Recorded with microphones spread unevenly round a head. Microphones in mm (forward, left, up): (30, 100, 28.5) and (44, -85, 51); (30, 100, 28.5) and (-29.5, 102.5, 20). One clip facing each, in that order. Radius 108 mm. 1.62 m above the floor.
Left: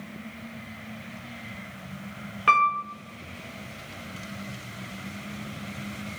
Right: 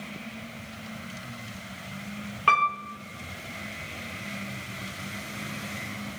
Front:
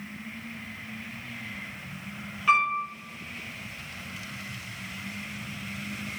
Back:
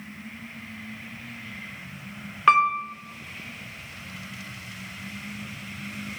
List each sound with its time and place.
2.5 s a piano: straight behind, 0.6 m